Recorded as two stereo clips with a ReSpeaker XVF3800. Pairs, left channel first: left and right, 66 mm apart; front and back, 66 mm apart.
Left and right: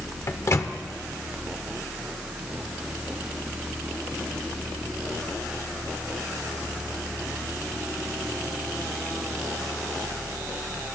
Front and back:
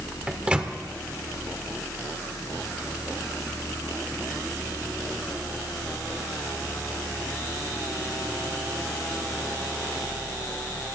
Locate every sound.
0.3 s a microwave: 115° left, 0.9 m